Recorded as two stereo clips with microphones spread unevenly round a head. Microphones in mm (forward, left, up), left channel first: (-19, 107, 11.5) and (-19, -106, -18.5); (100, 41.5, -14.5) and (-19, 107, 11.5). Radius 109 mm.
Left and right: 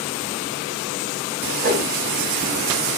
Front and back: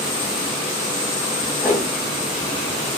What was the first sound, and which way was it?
A whoosh, 125° right.